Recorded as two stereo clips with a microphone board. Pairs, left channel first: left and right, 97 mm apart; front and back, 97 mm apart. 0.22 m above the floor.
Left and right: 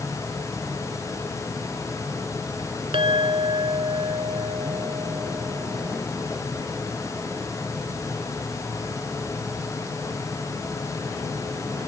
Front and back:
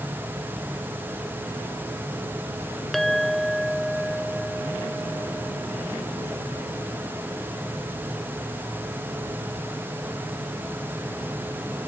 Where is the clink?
90° right.